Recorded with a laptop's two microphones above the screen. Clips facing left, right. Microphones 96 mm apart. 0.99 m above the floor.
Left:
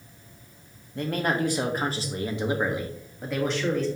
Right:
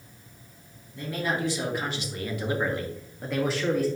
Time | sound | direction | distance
0.9 | a man speaking | 60° left (ahead or behind) | 1.8 m